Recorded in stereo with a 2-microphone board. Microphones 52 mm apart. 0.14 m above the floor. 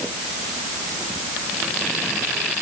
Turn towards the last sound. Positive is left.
No sound to turn to.